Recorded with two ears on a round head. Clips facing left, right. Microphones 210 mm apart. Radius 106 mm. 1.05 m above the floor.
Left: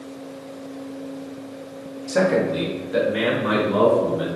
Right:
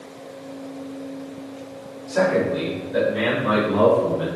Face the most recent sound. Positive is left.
turn(degrees=75)  # may be behind; listen again after turning